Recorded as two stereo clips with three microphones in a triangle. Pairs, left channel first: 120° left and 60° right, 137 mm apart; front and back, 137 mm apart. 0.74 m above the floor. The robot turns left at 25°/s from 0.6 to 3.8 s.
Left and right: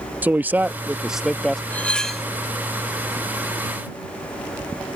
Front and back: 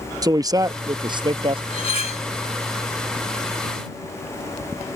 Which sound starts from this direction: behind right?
A man speaking, at 0.2 s.